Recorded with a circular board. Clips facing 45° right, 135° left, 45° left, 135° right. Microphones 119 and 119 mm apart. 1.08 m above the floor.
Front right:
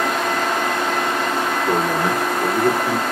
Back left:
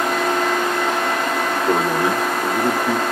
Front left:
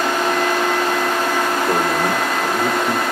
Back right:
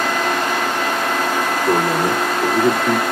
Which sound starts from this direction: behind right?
A man speaking, at 1.7 s.